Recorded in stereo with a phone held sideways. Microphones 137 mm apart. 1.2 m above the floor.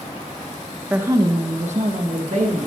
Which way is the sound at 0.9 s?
15° right (ahead or behind).